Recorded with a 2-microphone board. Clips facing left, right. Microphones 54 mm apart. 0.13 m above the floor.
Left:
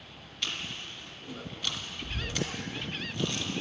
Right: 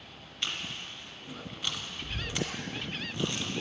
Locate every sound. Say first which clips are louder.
0.4 s chewing: even; 20° right (ahead or behind), 1.5 m